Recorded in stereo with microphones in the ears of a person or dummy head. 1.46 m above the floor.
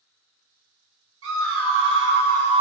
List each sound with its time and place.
1.2 s a scream: 70° right (ahead or behind), 0.9 m; by 2.6 s 25° right (ahead or behind), 0.5 m